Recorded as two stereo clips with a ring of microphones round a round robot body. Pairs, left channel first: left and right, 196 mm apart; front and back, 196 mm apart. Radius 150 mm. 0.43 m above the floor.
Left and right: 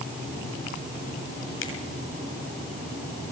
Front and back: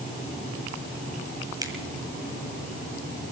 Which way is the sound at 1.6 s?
110° left.